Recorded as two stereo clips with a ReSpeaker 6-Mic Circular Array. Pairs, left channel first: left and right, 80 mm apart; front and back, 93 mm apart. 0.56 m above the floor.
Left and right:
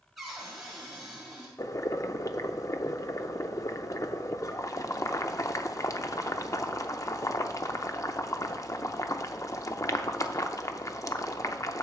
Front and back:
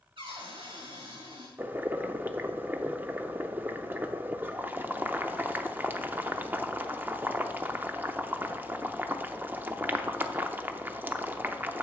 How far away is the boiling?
About 0.6 m.